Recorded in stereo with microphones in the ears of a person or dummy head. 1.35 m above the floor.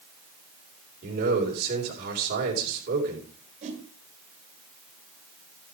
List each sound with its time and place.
1.0 s a man speaking: 60° right (ahead or behind), 4.5 m
3.6 s a whoosh: 40° right (ahead or behind), 3 m